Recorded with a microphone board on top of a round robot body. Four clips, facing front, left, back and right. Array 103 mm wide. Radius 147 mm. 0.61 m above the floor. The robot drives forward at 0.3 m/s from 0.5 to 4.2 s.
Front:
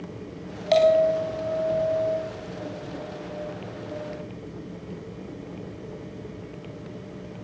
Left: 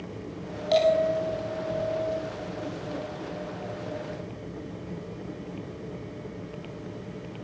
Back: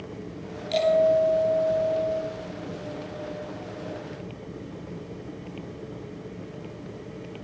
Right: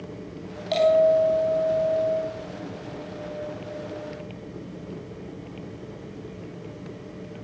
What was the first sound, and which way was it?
A bell, straight ahead.